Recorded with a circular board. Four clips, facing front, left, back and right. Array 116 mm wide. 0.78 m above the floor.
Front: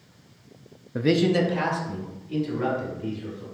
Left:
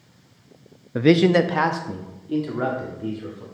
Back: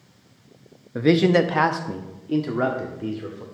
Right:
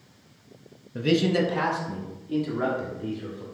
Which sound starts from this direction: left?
A man speaking, at 0.9 s.